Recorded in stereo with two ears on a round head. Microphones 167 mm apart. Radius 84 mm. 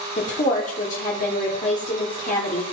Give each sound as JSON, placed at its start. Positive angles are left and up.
{"t": 0.2, "sound": "a woman speaking", "side_deg": 40, "distance_m": 1.6}